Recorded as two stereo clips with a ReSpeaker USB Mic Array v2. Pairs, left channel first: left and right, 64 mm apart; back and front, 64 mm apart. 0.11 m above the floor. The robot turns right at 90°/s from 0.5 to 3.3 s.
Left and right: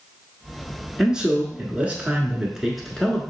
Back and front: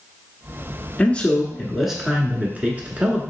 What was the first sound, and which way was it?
A man speaking, 165° right.